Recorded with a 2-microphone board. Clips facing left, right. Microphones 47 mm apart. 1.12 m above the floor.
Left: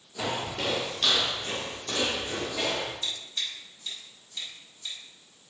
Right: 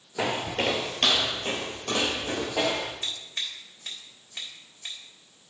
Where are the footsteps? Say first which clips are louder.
Right 4 dB; 40° right (ahead or behind), 1.3 m; by 2.9 s 65° right (ahead or behind), 3 m.